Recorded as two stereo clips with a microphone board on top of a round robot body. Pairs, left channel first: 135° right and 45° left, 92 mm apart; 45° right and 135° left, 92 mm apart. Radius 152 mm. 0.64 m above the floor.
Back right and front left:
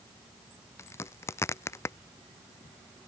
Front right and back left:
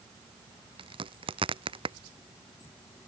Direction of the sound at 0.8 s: 165° left.